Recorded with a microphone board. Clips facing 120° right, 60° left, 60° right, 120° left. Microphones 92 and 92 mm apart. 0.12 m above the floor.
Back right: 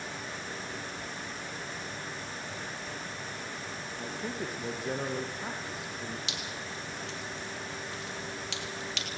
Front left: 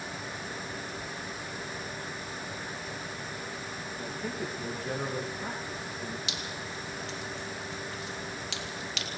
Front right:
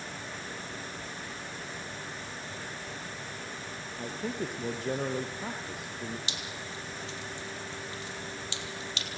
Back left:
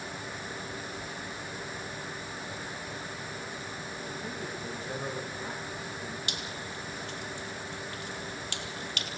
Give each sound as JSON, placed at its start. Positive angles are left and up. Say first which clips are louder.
{"t": 4.0, "sound": "a man speaking", "louder": "front left 1 dB, front right 6 dB", "azimuth_deg": -35, "distance_m": 3.5}
{"t": 6.3, "sound": "dripping", "louder": "front left 1 dB, back left 1 dB", "azimuth_deg": 150, "distance_m": 3.0}